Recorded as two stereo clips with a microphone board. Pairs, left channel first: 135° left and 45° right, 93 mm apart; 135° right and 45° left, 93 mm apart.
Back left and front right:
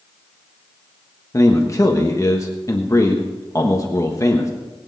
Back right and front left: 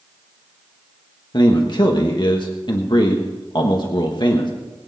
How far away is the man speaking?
About 1.3 m.